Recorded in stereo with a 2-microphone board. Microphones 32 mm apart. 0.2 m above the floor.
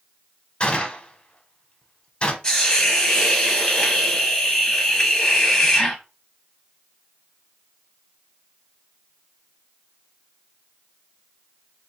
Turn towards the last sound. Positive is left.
turn(degrees=20)  # may be behind; listen again after turning